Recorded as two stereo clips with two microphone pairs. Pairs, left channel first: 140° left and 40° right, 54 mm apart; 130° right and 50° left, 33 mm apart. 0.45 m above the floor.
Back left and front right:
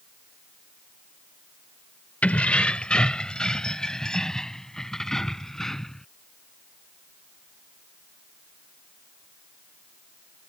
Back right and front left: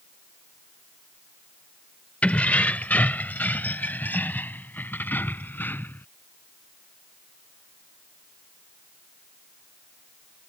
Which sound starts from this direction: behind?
Keys jangling, at 2.2 s.